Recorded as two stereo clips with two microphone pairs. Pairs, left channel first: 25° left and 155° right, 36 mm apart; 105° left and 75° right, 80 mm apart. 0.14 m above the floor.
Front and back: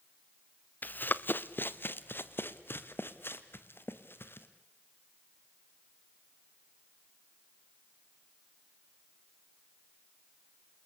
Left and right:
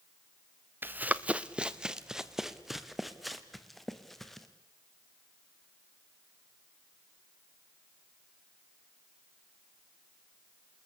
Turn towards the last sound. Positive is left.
turn(degrees=15)